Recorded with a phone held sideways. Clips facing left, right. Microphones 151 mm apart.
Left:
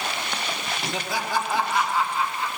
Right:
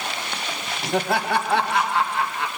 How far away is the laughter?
About 1.4 m.